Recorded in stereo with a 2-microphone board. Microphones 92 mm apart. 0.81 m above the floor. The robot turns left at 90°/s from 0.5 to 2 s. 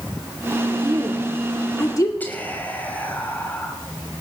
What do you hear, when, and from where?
0.8 s a woman speaking: 55° right (ahead or behind), 1.7 m; by 2.1 s 45° left (ahead or behind), 1.7 m
2.2 s whispering: 20° left (ahead or behind), 5.5 m